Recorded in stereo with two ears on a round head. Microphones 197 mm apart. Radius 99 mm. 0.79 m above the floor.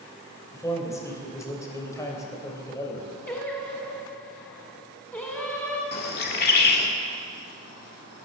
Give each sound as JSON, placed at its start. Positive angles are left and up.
{"t": 0.5, "sound": "a man speaking", "side_deg": 15, "distance_m": 3.0}
{"t": 3.3, "sound": "singing", "side_deg": 10, "distance_m": 2.0}
{"t": 5.9, "sound": "a bird", "side_deg": 50, "distance_m": 1.5}